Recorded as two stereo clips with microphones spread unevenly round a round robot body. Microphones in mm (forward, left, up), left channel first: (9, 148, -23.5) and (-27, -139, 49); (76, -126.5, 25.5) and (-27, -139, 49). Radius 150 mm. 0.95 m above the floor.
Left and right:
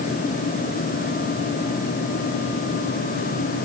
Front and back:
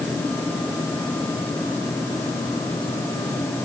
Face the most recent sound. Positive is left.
No sound to turn to.